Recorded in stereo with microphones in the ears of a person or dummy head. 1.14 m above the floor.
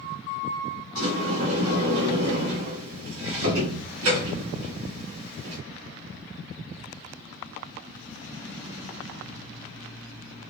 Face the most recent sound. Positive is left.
turn(degrees=-85)